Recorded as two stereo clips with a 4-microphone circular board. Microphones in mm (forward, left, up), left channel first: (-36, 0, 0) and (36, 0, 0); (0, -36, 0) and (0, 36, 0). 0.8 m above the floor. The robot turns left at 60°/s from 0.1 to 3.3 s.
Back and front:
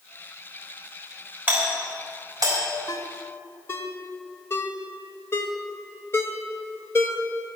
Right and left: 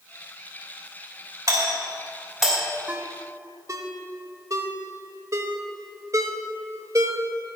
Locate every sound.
1.5 s a doorbell: 60° left, 3.5 m; by 2.6 s 10° right, 3.5 m
2.9 s a ringtone: 155° left, 1.2 m; by 7.2 s 130° left, 1.2 m